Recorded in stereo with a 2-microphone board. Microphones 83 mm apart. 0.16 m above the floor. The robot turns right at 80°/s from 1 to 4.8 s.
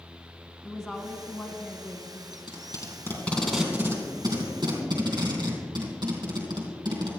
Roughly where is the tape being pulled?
Left.